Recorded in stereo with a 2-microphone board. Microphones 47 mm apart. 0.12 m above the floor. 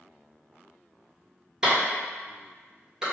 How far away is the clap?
About 1.9 m.